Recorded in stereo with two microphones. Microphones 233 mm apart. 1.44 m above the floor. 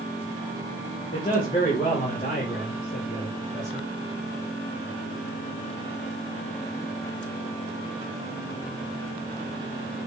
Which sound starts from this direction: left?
A man speaking, at 1.1 s.